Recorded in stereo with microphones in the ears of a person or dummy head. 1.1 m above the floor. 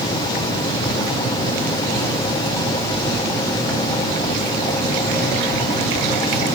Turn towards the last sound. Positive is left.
No sound to turn to.